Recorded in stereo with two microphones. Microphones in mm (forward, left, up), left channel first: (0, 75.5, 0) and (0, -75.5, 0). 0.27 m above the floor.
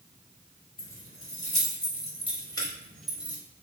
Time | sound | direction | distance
0.8 | keys jangling | 55° left (ahead or behind) | 1.8 m